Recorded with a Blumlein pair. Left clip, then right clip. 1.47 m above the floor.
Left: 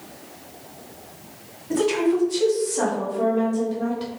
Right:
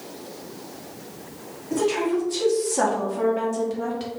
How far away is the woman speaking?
About 1.2 m.